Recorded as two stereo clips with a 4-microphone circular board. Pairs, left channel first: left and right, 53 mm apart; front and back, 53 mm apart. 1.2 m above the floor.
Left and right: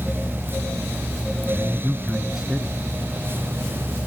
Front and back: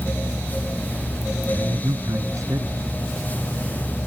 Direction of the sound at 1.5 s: 170° right.